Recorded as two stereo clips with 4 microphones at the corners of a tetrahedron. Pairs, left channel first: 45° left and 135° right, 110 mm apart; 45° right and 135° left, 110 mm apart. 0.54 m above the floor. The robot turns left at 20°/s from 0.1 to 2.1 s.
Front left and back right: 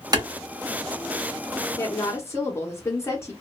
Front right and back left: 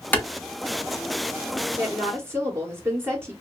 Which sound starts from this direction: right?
A clap, at 0.1 s.